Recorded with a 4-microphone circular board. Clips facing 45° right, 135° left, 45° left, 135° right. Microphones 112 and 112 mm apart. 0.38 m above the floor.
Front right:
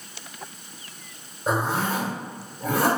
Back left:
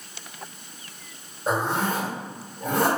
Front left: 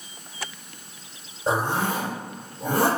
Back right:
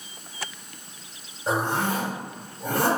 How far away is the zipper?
About 1.4 m.